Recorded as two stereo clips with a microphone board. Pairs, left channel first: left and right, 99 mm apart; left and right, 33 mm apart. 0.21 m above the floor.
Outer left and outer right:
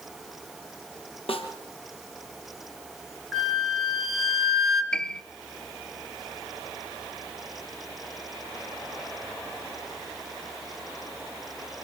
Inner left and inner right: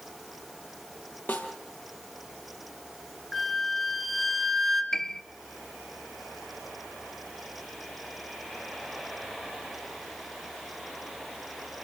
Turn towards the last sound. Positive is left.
turn(degrees=10)  # may be behind; listen again after turning